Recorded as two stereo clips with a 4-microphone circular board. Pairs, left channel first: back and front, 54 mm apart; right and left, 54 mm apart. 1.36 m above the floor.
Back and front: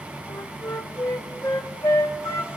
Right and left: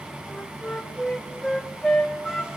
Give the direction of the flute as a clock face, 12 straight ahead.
6 o'clock.